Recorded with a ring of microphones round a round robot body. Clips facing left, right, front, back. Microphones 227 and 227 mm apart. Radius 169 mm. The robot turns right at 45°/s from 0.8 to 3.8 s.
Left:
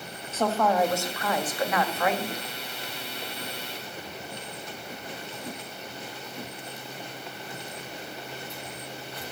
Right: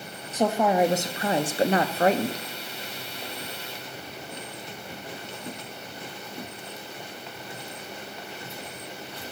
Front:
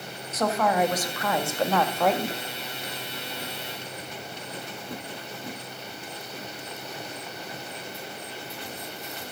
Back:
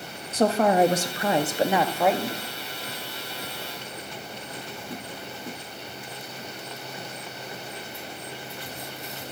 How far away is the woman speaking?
About 0.7 m.